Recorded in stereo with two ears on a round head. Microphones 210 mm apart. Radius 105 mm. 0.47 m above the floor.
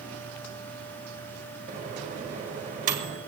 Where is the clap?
No clap in this recording.